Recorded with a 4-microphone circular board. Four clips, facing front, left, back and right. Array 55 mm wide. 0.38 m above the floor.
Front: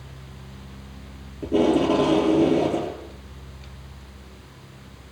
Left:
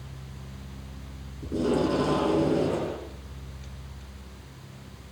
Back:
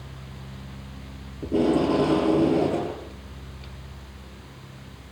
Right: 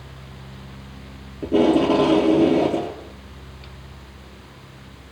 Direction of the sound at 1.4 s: 85° right.